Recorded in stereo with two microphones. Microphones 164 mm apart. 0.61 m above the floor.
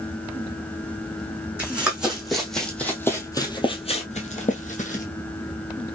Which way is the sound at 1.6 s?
10° right (ahead or behind).